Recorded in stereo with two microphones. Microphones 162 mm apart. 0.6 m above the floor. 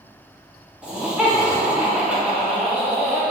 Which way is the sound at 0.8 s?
5° right (ahead or behind).